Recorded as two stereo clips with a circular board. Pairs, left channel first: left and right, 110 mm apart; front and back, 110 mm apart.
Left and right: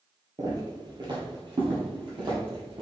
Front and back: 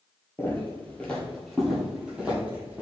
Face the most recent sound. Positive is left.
turn(degrees=-110)